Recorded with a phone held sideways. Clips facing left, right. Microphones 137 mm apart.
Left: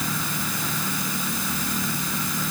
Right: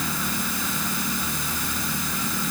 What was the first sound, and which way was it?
Only background noise.